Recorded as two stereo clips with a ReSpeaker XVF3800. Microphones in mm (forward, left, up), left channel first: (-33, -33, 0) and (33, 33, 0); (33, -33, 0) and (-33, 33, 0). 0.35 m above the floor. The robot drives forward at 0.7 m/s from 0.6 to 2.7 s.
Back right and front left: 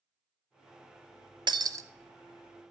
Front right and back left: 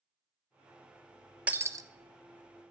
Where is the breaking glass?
60° left, 0.5 m; by 1.9 s 100° left, 0.5 m.